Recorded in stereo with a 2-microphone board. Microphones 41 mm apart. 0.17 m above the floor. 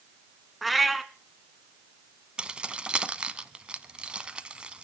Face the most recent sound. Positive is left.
turn(degrees=-25)  # may be behind; listen again after turning